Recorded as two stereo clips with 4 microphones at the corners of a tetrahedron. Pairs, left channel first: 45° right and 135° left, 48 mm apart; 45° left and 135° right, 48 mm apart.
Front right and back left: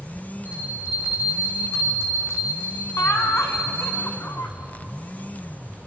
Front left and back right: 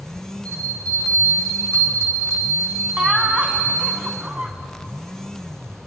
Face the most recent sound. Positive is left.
turn(degrees=-70)